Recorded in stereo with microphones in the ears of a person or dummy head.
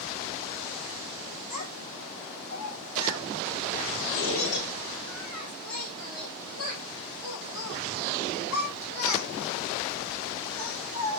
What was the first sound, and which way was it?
A child speaking, 45° left (ahead or behind).